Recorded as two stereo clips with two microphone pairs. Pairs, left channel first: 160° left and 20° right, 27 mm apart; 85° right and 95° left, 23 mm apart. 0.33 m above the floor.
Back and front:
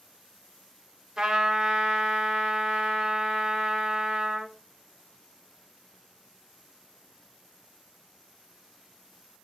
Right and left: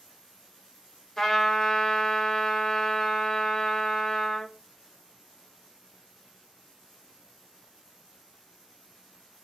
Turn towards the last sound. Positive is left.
turn(degrees=-40)